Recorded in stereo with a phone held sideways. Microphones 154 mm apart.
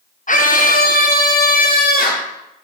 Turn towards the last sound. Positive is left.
turn(degrees=75)  # may be behind; listen again after turning